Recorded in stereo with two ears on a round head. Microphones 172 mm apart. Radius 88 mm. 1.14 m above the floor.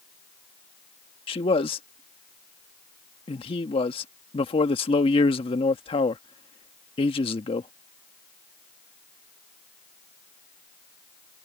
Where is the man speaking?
25° left (ahead or behind).